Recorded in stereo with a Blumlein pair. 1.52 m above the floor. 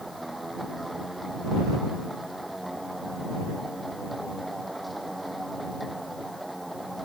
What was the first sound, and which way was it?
A machine running, 5° right.